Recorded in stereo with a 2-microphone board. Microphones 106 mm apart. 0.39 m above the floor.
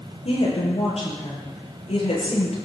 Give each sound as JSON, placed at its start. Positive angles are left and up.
{"t": 0.2, "sound": "a woman speaking", "side_deg": 80, "distance_m": 8.0}